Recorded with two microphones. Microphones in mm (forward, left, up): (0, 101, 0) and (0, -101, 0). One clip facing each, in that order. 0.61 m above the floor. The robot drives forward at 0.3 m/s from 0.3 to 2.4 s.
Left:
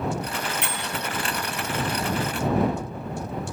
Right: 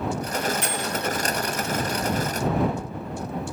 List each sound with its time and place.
0.6 s a bell: 65° left (ahead or behind), 4 m; by 0.9 s 70° left (ahead or behind), 4 m